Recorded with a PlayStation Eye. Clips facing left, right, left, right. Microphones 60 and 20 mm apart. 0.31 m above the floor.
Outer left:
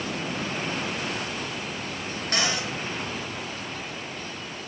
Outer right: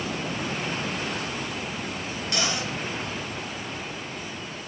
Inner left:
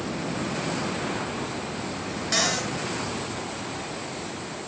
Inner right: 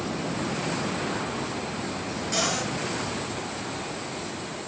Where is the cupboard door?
35° left (ahead or behind), 4.5 m.